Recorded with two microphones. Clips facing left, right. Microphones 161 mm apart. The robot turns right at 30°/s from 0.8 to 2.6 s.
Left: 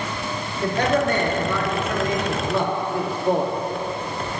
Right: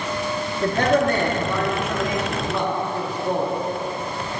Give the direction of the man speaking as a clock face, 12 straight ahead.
2 o'clock.